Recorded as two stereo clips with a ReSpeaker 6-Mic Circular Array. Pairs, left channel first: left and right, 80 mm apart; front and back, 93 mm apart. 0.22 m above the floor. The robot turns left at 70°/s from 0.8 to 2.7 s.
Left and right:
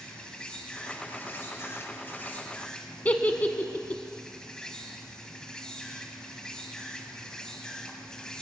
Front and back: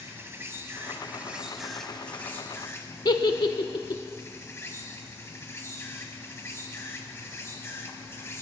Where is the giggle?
25° left, 0.6 m.